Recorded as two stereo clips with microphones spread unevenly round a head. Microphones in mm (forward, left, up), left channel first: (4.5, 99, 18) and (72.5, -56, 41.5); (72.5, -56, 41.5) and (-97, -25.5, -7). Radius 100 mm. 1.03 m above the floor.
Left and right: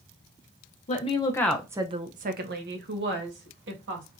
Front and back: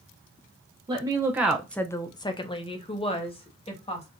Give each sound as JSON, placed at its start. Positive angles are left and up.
{"t": 0.9, "sound": "a woman speaking", "azimuth_deg": 130, "distance_m": 0.7}